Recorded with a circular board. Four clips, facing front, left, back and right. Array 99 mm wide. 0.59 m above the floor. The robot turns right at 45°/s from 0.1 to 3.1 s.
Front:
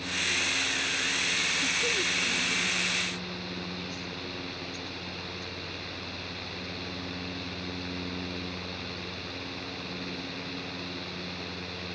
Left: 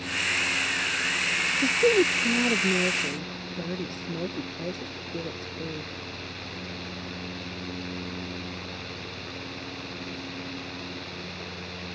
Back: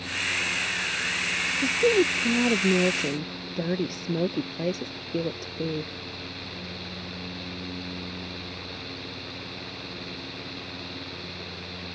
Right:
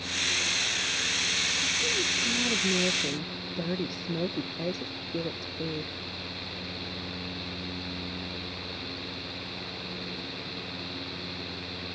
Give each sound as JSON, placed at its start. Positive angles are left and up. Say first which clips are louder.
{"t": 1.6, "sound": "a woman speaking", "louder": "left 15 dB, back 15 dB", "azimuth_deg": 120}